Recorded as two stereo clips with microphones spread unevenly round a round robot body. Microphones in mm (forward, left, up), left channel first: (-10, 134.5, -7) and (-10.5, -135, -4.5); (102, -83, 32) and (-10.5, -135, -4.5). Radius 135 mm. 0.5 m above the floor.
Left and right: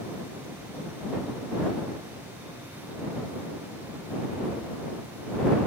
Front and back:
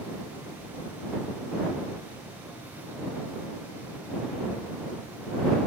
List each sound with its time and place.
Only background noise.